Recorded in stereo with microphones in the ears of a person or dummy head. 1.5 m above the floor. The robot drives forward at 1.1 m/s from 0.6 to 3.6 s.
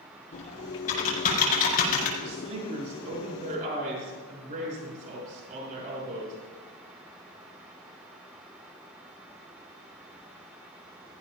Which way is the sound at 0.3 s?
40° left (ahead or behind).